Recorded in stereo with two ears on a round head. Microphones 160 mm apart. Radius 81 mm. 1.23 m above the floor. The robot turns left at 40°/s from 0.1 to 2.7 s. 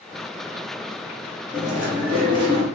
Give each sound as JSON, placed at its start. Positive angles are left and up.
{"t": 1.5, "sound": "chewing", "azimuth_deg": 5, "distance_m": 1.4}